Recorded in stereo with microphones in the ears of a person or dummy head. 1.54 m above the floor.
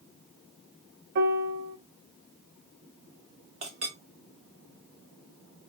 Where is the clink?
25° right (ahead or behind), 0.6 m.